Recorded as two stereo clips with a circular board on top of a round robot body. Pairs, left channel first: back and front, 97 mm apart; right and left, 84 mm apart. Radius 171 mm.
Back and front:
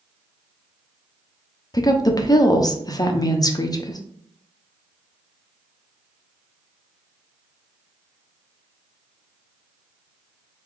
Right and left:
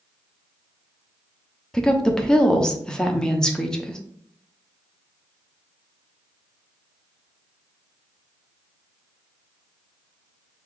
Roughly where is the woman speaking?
Behind.